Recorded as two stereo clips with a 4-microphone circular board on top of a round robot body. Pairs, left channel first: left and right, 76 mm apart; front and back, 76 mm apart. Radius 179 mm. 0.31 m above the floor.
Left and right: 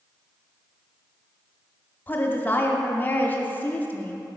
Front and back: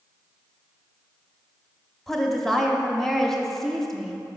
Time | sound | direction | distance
2.1 | a woman speaking | 80° left | 0.9 m